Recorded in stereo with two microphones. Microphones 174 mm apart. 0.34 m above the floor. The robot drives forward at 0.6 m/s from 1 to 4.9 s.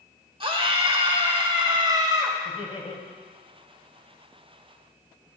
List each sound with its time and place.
0.4 s a scream: 30° right (ahead or behind), 1.0 m; by 2.4 s 20° right (ahead or behind), 1.4 m
2.5 s laughter: 30° left (ahead or behind), 1.6 m; by 3.0 s 40° left (ahead or behind), 1.4 m